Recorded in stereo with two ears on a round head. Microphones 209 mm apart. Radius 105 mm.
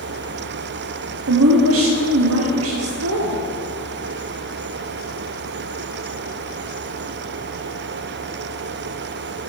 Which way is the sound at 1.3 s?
65° right (ahead or behind).